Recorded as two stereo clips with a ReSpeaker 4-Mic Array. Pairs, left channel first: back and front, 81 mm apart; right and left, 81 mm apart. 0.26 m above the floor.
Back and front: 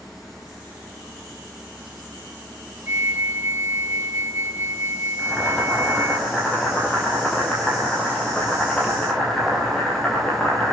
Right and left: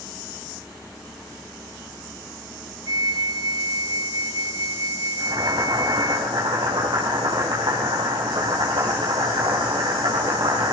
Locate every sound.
2.9 s a flute: 60° left, 0.9 m
5.2 s boiling: 100° left, 6 m